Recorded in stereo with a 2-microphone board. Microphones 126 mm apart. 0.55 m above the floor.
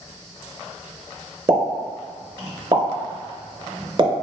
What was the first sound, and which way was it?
A pop, 35° right (ahead or behind).